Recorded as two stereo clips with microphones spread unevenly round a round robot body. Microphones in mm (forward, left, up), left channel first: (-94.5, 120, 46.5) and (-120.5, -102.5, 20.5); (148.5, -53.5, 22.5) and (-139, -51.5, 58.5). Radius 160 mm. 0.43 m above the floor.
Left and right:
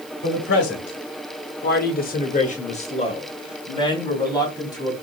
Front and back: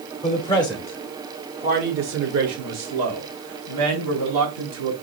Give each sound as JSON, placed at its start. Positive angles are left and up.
{"t": 0.2, "sound": "a man speaking", "azimuth_deg": 60, "distance_m": 1.1}